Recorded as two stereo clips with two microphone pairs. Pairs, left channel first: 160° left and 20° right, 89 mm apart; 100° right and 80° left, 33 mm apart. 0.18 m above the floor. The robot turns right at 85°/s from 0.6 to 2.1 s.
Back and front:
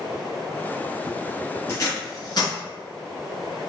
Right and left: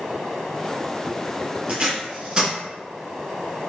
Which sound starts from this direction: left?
Tape being pulled, at 1.7 s.